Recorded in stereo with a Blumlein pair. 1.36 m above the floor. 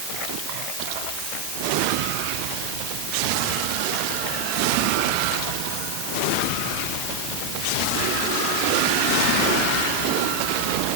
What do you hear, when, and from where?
Only background noise.